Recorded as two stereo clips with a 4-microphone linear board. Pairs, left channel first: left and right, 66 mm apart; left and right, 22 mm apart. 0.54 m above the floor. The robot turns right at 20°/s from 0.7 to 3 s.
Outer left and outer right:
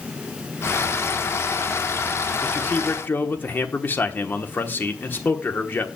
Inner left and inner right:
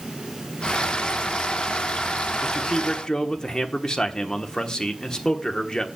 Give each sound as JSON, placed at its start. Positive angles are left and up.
{"t": 2.4, "sound": "a man speaking", "side_deg": 25, "distance_m": 1.2}